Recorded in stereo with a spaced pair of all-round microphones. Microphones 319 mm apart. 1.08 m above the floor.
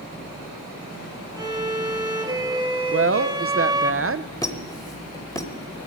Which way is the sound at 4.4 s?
10° left (ahead or behind).